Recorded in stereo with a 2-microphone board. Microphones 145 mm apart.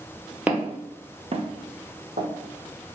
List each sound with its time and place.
0.5 s footsteps: 10° right (ahead or behind), 0.6 m; by 2.3 s 70° right (ahead or behind), 1.0 m